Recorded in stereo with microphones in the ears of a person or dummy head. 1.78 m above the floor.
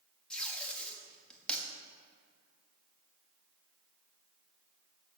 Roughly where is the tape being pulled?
Centre.